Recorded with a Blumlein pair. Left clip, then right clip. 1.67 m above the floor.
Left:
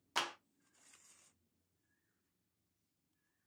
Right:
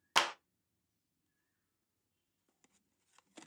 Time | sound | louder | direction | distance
0.1 | a clap | right 8 dB | 25° right | 0.6 m